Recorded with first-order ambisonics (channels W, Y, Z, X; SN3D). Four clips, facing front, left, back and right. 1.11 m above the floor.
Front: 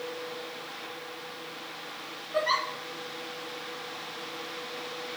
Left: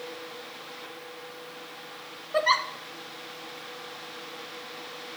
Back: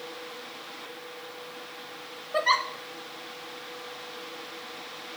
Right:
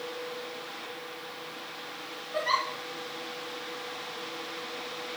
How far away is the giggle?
About 0.7 m.